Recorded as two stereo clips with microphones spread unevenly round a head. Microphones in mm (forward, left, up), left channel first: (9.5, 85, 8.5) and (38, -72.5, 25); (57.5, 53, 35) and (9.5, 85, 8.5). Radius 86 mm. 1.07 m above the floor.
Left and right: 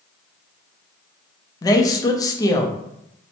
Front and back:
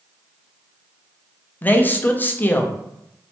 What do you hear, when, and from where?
1.6 s a man speaking: 45° left, 0.5 m